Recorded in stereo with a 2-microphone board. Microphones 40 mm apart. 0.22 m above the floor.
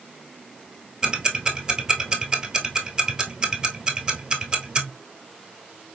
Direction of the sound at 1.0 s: 25° right (ahead or behind).